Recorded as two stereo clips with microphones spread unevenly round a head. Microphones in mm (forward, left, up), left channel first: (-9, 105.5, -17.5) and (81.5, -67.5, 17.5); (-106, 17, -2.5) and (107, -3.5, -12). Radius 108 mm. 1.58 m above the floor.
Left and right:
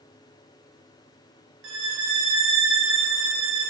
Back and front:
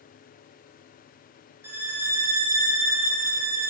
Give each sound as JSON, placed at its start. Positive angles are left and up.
{"t": 1.6, "sound": "a violin", "azimuth_deg": -85, "distance_m": 2.0}